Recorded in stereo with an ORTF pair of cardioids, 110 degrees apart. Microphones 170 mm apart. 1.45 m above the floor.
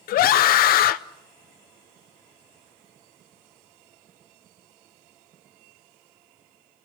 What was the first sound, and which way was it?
A scream, 60° left.